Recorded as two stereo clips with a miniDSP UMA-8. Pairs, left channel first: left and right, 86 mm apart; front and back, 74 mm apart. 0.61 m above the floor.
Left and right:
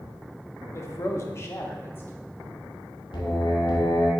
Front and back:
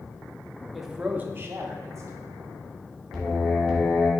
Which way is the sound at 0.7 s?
90° left.